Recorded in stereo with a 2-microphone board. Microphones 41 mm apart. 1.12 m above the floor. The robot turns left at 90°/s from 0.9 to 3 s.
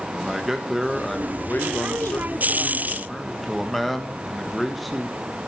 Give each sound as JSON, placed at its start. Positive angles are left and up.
{"t": 0.1, "sound": "a man speaking", "azimuth_deg": -170, "distance_m": 1.3}